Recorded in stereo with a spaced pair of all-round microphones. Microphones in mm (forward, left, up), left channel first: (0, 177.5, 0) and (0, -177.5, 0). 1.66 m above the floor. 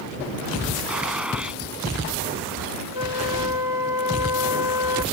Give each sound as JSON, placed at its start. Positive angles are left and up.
{"t": 0.9, "sound": "a gunshot", "side_deg": -5}
{"t": 2.9, "sound": "a flute", "side_deg": 75}